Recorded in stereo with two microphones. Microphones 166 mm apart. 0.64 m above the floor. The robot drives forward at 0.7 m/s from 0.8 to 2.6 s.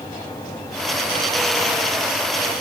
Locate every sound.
Only background noise.